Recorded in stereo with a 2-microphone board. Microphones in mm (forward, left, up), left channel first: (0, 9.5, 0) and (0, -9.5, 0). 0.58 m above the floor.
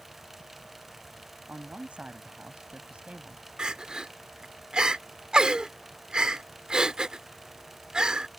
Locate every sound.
1.5 s a man speaking: 80° right
3.6 s crying: 45° right (ahead or behind)